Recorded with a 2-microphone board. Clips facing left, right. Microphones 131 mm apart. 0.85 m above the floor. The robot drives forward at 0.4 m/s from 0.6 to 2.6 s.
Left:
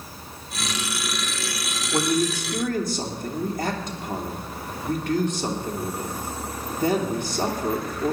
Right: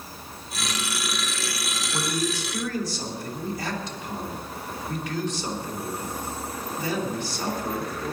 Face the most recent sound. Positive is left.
turn(degrees=55)  # may be behind; listen again after turning